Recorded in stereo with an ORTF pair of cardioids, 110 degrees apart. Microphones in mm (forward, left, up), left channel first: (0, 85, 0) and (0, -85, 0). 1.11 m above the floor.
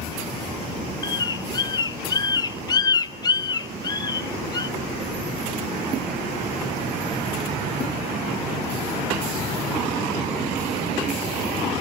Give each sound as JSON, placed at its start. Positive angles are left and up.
{"t": 1.0, "sound": "a bird", "azimuth_deg": 25, "distance_m": 0.6}